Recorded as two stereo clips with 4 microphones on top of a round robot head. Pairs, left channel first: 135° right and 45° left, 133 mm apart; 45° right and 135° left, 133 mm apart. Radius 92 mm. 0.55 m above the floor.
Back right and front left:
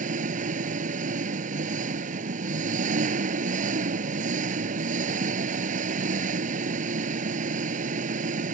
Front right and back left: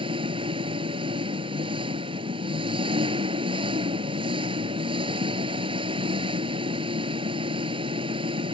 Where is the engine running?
75° left.